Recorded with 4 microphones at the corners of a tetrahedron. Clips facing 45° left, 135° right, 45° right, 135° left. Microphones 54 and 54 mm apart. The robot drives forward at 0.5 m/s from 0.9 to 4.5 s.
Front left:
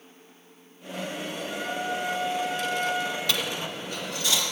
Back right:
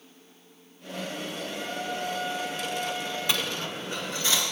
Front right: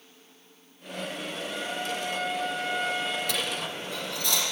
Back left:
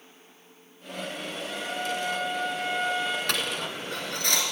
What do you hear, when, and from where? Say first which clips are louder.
1.5 s a trumpet: front left 5 dB, back left 2 dB; 55° left, 3 m; by 3.2 s 70° left, 2.5 m
3.3 s a dropped coin: even, back left 1 dB; 160° left, 1.0 m; by 4.4 s 170° left, 1.6 m